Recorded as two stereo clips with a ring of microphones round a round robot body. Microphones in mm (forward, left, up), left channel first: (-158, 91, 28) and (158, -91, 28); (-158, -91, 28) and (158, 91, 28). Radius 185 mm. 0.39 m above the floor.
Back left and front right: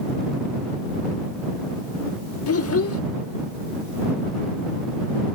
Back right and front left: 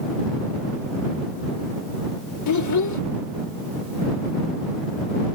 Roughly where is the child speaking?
Behind.